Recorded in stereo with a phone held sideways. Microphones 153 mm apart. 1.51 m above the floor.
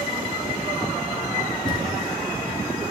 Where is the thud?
30° left (ahead or behind), 2.5 m.